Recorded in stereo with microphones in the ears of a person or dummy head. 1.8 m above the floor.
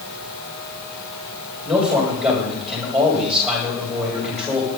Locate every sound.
1.6 s a man speaking: 5° right (ahead or behind), 9 m